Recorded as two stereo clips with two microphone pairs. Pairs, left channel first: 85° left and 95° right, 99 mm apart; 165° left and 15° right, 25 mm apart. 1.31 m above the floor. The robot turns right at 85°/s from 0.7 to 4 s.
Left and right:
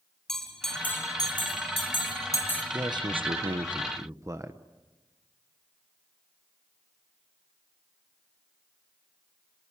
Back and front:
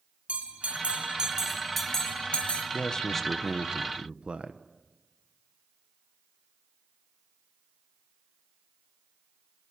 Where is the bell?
Straight ahead, 2.5 m; by 2.6 s 165° left, 2.5 m.